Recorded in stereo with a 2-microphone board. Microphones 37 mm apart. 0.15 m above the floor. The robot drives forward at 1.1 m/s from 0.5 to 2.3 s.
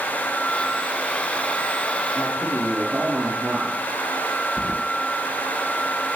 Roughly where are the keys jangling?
Left.